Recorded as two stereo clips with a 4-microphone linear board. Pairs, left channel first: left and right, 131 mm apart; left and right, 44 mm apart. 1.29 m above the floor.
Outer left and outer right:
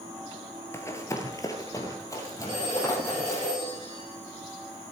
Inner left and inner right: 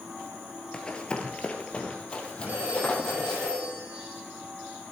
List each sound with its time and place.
0.7 s running footsteps: 20° left (ahead or behind), 1.3 m
2.5 s a phone ringing: 40° right (ahead or behind), 7 m